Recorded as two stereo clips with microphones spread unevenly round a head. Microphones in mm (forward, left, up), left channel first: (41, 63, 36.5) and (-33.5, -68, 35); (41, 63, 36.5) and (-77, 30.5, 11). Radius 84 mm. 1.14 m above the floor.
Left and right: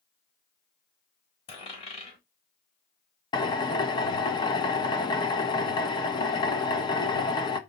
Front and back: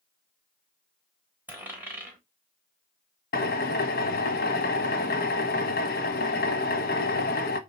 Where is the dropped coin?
115° left, 4 m.